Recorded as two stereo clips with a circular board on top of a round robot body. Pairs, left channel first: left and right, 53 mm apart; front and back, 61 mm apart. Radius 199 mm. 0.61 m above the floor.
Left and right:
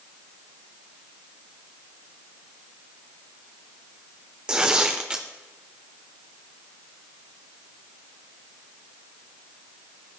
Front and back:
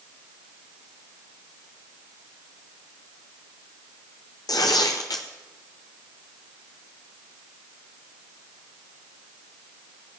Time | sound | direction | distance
4.5 | tearing paper | 15° right | 0.6 m